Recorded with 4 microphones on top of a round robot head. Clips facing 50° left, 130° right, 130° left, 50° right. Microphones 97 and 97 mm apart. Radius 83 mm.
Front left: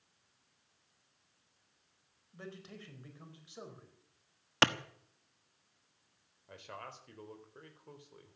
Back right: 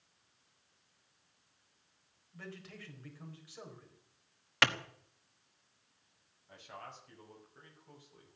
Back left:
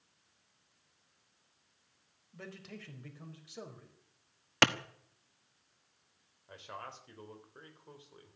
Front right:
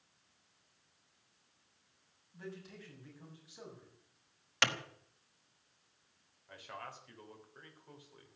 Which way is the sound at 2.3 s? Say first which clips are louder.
Front left 1 dB, even; 115° left.